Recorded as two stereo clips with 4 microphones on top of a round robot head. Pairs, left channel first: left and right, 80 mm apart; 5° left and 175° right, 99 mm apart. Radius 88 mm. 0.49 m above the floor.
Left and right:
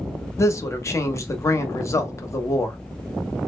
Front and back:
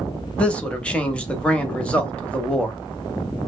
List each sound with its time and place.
0.4 s a man speaking: 75° left, 0.8 m